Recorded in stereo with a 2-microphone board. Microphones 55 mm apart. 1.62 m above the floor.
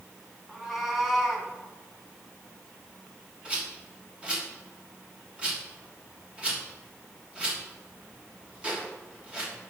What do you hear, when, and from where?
0.5 s a cat meowing: 5° right (ahead or behind), 2 m; by 1.5 s 5° left (ahead or behind), 1.8 m
3.5 s a rattle: 20° right (ahead or behind), 3 m